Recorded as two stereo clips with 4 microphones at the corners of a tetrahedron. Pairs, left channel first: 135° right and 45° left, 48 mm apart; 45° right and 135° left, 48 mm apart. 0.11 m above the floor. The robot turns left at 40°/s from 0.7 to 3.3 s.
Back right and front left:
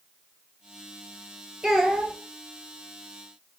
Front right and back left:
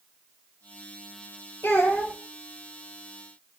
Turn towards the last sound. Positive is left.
turn(degrees=-100)